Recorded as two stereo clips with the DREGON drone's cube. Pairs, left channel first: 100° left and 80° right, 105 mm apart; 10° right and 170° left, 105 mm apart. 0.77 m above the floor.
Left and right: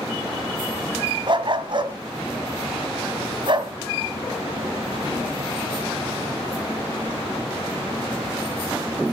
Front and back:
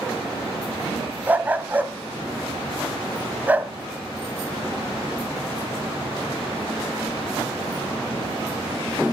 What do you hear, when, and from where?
1.3 s a dog barking: 120° right, 1.7 m